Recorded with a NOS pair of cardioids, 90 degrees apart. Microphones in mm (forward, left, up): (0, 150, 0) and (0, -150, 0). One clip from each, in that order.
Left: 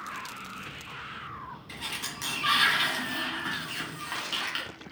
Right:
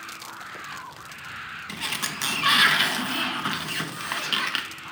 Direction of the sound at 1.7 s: 40° right.